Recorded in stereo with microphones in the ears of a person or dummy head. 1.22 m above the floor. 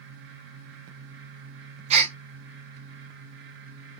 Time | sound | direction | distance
1.9 | a gasp | 45° right (ahead or behind) | 0.7 m